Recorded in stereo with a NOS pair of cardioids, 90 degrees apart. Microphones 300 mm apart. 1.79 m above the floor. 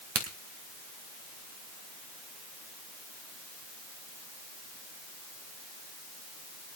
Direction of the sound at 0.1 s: 45° right.